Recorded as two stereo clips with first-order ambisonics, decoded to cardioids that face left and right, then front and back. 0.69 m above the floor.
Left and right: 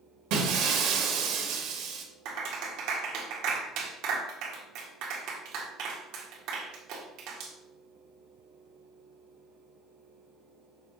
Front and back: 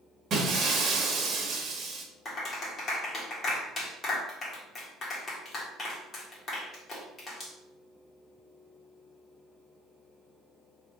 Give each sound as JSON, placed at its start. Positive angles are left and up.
{"t": 0.3, "sound": "breaking glass", "azimuth_deg": -120, "distance_m": 1.5}
{"t": 2.2, "sound": "a clap", "azimuth_deg": -65, "distance_m": 1.6}